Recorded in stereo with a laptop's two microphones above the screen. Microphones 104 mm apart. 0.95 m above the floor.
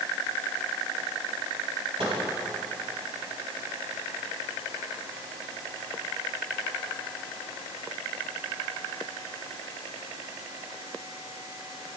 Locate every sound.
2.0 s a microwave: 85° right, 4.5 m